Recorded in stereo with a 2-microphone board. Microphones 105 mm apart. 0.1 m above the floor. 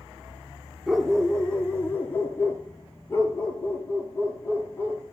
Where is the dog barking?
Centre (ahead or behind), 0.6 m; by 5.0 s 25° left (ahead or behind), 1.9 m.